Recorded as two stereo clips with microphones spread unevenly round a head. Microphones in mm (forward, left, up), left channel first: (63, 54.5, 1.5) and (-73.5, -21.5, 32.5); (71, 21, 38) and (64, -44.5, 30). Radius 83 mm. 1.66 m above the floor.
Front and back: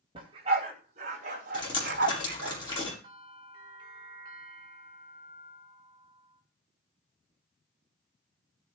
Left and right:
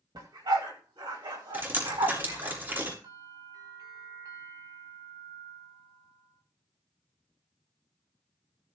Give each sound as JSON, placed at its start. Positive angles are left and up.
{"t": 0.1, "sound": "a dog barking", "azimuth_deg": -95, "distance_m": 4.0}
{"t": 1.5, "sound": "dripping", "azimuth_deg": -35, "distance_m": 7.5}
{"t": 3.0, "sound": "a bell", "azimuth_deg": -85, "distance_m": 5.0}